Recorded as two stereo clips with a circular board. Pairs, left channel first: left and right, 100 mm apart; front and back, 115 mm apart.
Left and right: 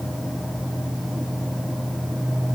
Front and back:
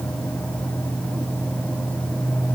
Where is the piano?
I don't hear a piano.